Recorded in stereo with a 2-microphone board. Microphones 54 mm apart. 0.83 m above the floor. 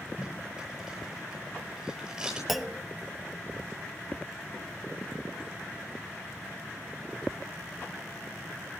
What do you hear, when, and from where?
0.2 s tape being pulled: 10° right (ahead or behind), 9.5 m
2.5 s a clunk: centre (ahead or behind), 0.9 m